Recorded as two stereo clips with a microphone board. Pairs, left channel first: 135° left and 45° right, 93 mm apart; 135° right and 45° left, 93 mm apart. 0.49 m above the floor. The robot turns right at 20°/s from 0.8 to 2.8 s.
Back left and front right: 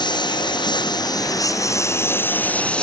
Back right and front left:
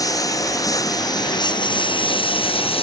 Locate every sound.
0.0 s a lawn mower: 175° left; by 2.8 s 145° right